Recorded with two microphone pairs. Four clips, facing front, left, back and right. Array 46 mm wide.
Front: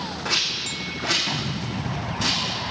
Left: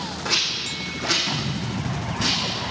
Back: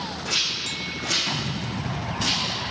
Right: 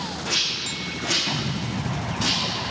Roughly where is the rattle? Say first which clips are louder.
Left 2 dB, front 2 dB; ahead left.